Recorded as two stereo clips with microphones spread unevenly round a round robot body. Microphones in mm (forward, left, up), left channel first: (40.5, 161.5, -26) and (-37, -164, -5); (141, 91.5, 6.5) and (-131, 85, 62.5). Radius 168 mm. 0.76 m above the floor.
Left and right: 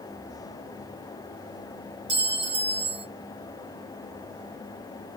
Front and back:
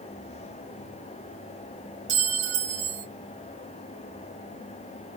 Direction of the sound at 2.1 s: Straight behind.